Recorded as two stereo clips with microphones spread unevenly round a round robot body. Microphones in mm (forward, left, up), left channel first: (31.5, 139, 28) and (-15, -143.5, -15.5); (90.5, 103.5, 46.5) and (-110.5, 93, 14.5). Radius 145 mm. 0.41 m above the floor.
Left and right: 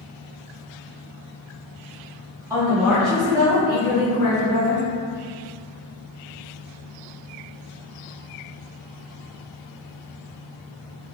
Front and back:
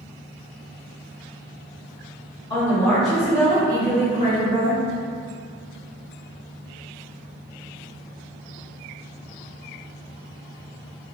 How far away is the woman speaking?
About 0.9 m.